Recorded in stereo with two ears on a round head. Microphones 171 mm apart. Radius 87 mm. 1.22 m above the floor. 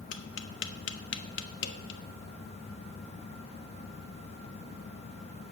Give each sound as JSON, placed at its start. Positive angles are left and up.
{"t": 0.1, "sound": "tapping", "side_deg": 65, "distance_m": 0.7}